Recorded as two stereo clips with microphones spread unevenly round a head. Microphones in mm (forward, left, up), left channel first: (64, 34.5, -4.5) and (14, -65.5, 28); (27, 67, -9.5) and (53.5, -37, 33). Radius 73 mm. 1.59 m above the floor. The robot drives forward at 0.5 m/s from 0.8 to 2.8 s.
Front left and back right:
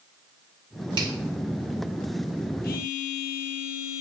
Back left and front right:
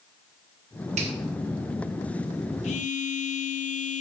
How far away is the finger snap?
About 2.5 m.